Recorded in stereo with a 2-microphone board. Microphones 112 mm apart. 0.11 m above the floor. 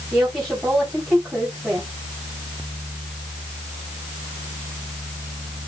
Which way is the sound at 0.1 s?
5° right (ahead or behind).